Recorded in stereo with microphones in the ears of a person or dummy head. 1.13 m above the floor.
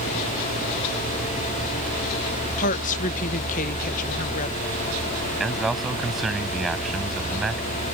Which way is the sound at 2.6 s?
45° left (ahead or behind).